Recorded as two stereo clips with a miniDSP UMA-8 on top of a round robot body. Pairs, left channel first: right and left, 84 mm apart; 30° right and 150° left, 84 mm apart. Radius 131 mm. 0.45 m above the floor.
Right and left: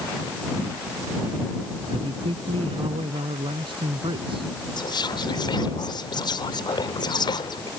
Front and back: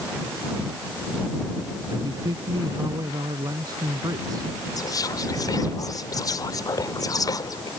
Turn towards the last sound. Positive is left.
turn(degrees=-70)